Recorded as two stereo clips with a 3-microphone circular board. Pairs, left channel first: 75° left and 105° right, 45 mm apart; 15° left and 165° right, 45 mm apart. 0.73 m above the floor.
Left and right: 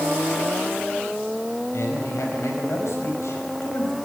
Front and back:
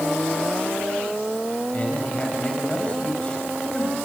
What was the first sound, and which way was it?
A man speaking, 75° left.